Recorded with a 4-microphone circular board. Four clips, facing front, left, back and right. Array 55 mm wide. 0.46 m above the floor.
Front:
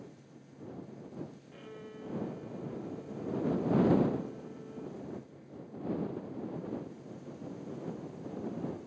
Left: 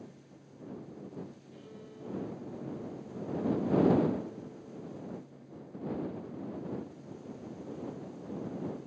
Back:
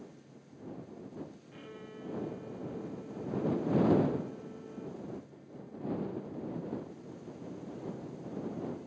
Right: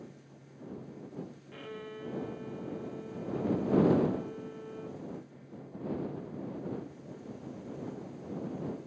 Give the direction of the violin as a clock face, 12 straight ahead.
3 o'clock.